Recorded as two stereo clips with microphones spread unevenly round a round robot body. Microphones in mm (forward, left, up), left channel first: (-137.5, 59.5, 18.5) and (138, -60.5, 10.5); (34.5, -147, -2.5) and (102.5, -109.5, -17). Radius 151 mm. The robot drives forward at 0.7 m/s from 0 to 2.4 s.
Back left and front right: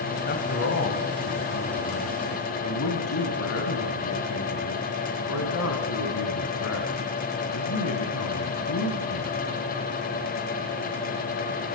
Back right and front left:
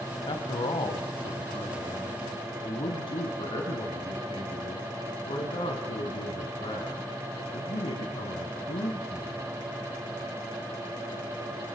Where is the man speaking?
145° right, 2.5 m; by 9.4 s 160° right, 3.5 m.